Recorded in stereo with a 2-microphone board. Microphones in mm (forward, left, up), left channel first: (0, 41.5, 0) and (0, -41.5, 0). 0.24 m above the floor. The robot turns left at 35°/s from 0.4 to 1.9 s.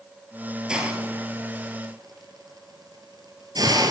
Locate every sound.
0.7 s a hiss: 10° right (ahead or behind), 1.5 m; by 3.9 s 50° right (ahead or behind), 1.5 m